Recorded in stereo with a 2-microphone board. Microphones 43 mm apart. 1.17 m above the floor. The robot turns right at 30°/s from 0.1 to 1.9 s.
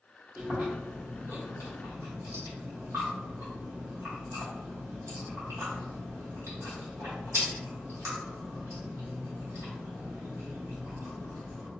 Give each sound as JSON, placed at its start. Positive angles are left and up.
{"t": 0.4, "sound": "chewing", "side_deg": -45, "distance_m": 1.0}